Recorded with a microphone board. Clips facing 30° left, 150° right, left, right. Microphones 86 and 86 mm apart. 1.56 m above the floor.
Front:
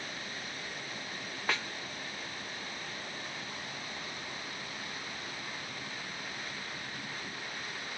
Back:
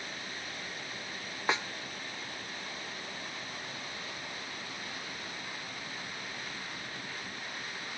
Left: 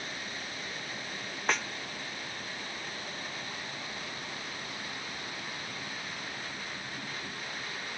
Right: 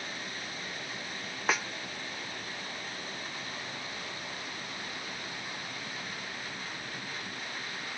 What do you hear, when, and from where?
1.5 s a snare drum: 170° right